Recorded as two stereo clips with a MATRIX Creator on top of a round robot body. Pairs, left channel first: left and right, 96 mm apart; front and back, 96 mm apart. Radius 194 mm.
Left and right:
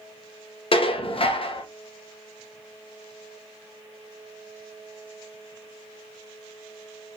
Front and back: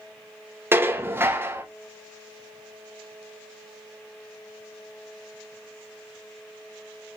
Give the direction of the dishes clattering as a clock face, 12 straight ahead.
8 o'clock.